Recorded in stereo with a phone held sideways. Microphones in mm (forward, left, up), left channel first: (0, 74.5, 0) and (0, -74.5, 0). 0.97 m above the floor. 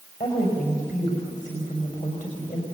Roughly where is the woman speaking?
Left.